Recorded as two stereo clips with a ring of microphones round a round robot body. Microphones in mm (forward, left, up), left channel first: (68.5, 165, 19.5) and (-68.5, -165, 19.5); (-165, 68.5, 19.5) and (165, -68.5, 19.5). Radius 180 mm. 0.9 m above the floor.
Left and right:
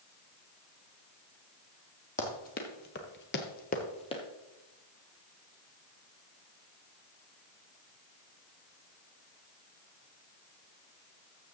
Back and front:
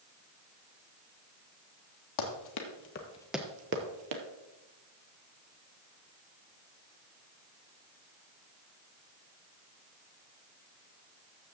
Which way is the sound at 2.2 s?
135° left.